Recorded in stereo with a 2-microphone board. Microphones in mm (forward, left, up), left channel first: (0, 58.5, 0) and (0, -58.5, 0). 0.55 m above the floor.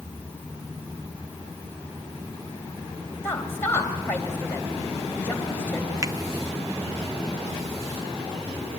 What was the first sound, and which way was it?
A woman speaking, 20° left (ahead or behind).